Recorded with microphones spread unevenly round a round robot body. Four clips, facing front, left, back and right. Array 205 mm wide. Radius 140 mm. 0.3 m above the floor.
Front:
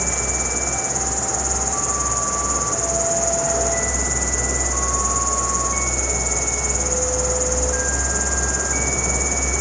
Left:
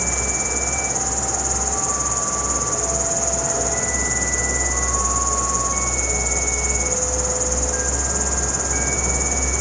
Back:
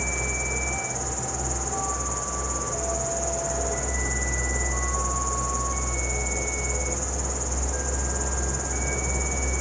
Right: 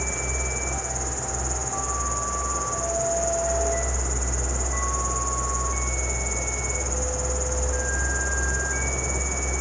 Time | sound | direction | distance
0.0 | an insect | 40° left | 8 m